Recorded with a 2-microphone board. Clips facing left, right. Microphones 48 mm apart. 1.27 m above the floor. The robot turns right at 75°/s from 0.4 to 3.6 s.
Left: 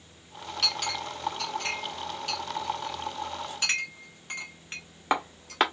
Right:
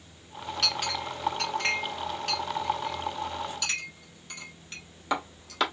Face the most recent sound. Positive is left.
turn(degrees=40)  # may be behind; listen again after turning